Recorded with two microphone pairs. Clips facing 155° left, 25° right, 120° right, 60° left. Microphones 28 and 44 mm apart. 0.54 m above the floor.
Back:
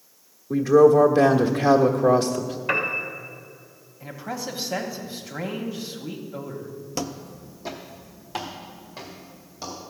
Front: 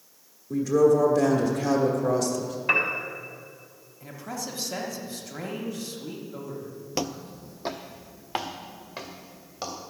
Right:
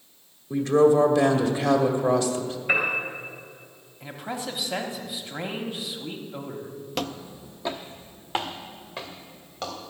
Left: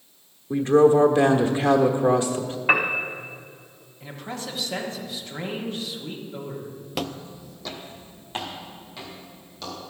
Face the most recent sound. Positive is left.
turn(degrees=-65)